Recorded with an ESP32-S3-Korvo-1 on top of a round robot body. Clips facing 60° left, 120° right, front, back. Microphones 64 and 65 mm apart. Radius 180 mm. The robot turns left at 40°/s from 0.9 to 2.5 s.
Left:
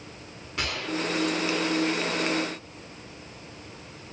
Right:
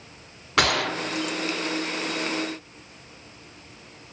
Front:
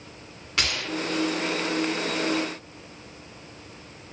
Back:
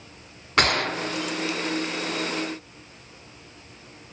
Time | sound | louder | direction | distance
0.6 | a gunshot | right 7 dB, back 6 dB | 140° right | 1.1 m